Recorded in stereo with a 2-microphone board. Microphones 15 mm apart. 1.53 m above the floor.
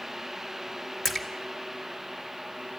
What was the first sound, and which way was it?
A splash, 20° left (ahead or behind).